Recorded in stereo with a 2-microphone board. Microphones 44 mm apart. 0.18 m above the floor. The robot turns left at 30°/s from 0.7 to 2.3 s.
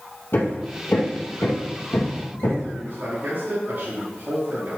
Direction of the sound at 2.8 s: 40° right (ahead or behind).